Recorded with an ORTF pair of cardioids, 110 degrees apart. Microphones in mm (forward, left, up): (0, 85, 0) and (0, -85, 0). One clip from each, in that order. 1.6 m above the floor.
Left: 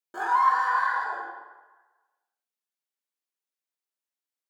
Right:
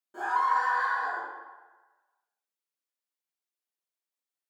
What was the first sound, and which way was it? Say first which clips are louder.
A scream: left 4 dB; 55° left.